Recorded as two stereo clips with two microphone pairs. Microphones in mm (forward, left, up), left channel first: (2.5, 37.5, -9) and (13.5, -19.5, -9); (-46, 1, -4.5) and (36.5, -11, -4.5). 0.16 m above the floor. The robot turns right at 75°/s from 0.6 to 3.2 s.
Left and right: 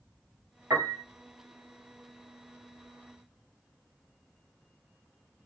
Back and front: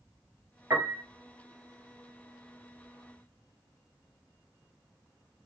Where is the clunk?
I don't hear a clunk.